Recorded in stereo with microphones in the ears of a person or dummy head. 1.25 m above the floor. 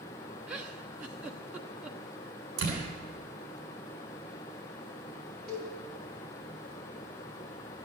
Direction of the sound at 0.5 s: 5° right (ahead or behind).